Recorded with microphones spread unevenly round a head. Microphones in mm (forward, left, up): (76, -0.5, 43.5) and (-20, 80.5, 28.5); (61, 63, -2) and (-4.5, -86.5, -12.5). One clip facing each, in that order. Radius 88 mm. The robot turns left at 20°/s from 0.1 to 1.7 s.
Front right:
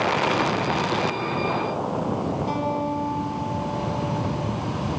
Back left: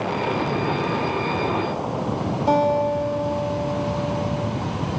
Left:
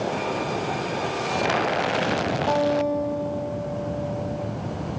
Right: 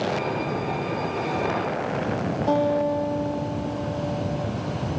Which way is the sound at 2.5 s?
160° left.